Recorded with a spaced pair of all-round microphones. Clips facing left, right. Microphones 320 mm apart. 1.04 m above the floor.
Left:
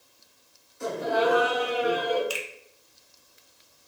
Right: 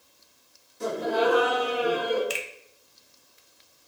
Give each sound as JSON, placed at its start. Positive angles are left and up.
{"t": 0.8, "sound": "laughter", "side_deg": -45, "distance_m": 1.9}
{"t": 2.3, "sound": "a finger snap", "side_deg": -30, "distance_m": 0.6}